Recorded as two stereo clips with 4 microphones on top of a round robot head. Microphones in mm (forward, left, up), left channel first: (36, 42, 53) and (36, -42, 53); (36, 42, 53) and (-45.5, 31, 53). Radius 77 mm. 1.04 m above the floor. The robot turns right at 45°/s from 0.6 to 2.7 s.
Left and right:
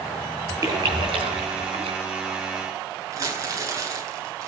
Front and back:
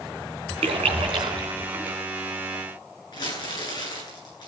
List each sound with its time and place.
0.6 s a splash: 150° right, 3.5 m; by 2.0 s 90° right, 3.5 m
3.1 s crumpling: 40° right, 10 m